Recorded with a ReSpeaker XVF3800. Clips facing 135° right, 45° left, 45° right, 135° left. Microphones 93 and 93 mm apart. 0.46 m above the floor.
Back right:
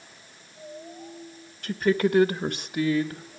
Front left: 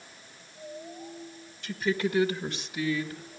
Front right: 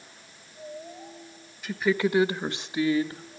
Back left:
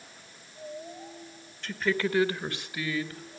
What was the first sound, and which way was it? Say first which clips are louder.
A woman speaking: back right 6 dB, front right 4 dB; 125° right.